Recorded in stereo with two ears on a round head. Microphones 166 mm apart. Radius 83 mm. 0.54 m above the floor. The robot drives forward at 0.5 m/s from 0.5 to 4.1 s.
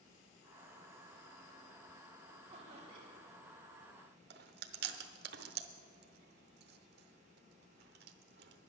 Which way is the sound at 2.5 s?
35° right (ahead or behind).